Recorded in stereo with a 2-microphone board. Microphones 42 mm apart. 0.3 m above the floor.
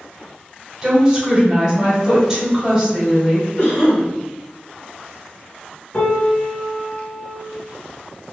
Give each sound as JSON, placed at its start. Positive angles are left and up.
{"t": 0.8, "sound": "a woman speaking", "side_deg": -5, "distance_m": 1.6}
{"t": 3.6, "sound": "a cough", "side_deg": 40, "distance_m": 1.9}
{"t": 5.9, "sound": "a piano", "side_deg": 35, "distance_m": 0.5}